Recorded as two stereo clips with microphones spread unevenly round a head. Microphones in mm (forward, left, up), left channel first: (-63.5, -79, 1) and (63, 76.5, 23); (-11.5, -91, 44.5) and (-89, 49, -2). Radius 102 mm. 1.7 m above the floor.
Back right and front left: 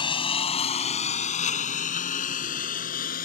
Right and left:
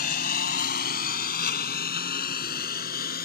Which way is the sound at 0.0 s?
60° right.